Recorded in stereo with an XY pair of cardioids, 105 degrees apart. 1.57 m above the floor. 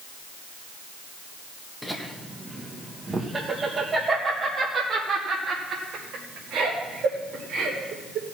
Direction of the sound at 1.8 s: Straight ahead.